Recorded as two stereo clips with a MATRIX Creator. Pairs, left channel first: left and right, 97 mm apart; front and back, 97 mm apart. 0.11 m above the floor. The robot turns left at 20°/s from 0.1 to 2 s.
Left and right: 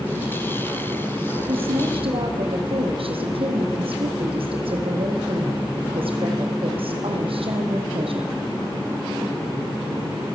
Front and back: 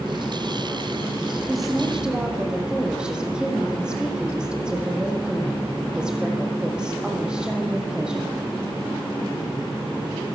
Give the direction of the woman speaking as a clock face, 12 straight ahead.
3 o'clock.